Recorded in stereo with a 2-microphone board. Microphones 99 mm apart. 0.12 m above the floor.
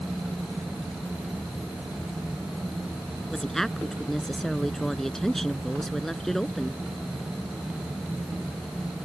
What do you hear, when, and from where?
3.3 s a woman speaking: 5° left (ahead or behind)